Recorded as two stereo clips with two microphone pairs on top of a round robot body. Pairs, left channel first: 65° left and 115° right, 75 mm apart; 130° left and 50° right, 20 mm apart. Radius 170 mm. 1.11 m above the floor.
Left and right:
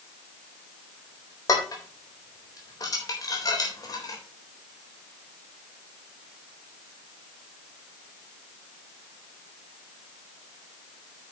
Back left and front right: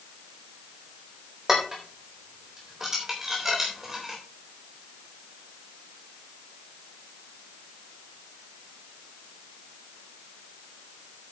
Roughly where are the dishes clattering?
Ahead left.